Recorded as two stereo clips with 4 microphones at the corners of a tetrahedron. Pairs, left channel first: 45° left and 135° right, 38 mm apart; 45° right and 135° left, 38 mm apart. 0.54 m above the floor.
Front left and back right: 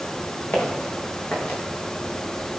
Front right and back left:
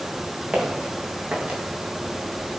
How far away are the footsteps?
About 5.5 m.